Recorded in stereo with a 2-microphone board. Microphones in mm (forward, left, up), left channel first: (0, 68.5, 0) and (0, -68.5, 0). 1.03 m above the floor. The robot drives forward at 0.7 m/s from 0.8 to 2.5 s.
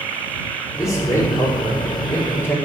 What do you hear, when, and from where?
0.8 s a man speaking: 20° left (ahead or behind), 3 m; by 2.5 s 15° left (ahead or behind), 4 m